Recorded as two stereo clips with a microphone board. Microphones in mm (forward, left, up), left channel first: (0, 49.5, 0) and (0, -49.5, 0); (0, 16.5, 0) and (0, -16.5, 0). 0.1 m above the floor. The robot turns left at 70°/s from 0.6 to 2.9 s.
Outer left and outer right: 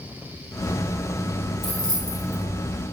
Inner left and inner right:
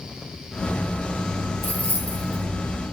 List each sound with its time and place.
1.6 s keys jangling: 65° left (ahead or behind), 1.9 m; by 2.4 s 20° left (ahead or behind), 1.9 m